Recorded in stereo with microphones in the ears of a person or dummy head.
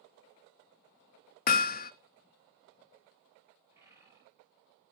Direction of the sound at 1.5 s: 45° left (ahead or behind).